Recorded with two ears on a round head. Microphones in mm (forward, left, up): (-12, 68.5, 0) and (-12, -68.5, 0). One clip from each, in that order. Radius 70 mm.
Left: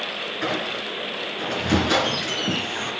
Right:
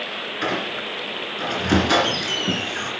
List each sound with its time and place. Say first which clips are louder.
0.4 s a squeak: right 2 dB; 15° right (ahead or behind), 3 m